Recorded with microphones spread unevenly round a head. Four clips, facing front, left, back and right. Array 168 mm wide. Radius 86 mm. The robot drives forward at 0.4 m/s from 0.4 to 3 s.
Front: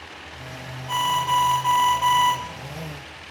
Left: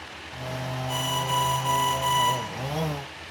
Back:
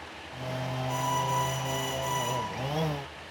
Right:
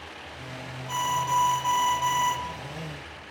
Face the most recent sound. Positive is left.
turn(degrees=-5)